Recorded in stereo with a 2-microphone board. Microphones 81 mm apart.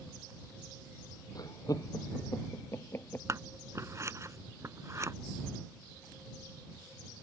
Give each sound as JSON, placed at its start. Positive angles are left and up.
{"t": 1.4, "sound": "laughter", "side_deg": 50}
{"t": 3.3, "sound": "scissors", "side_deg": -40}